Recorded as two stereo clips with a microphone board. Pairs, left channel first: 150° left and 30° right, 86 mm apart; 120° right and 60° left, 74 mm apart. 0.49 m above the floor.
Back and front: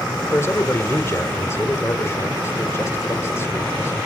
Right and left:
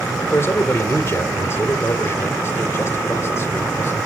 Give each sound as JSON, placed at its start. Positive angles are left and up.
{"t": 0.3, "sound": "a man speaking", "azimuth_deg": -160, "distance_m": 1.8}